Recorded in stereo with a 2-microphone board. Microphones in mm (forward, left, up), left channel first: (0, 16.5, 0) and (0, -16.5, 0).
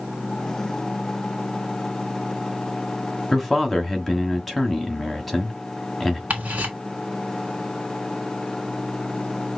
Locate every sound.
3.3 s a man speaking: 5° left (ahead or behind), 1.0 m
6.3 s ticking: 45° right (ahead or behind), 2.5 m